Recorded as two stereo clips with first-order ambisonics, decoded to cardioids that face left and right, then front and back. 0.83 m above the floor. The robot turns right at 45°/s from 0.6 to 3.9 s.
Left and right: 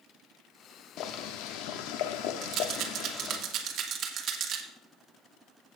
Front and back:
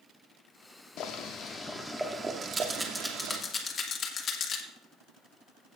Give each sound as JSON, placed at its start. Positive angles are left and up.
{"t": 1.0, "sound": "boiling", "azimuth_deg": 50, "distance_m": 0.9}
{"t": 2.4, "sound": "a rattle", "azimuth_deg": -120, "distance_m": 1.3}